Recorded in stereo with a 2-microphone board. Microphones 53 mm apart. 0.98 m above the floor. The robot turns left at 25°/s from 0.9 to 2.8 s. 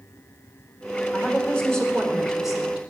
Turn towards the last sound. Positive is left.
turn(degrees=-15)